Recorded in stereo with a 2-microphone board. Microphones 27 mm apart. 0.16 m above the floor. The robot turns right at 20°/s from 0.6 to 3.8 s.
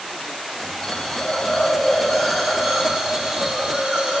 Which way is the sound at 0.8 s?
160° left.